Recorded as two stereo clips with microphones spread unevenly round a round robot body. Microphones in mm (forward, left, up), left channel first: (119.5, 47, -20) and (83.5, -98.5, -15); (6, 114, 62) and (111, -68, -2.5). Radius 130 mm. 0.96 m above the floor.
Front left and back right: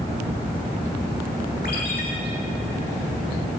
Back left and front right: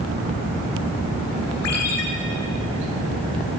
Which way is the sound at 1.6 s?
125° left.